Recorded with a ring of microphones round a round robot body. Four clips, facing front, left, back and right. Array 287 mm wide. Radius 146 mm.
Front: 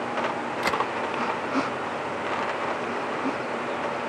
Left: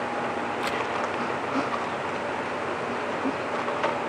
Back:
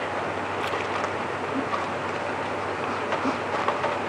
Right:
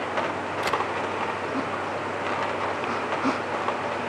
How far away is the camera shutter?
About 2.5 m.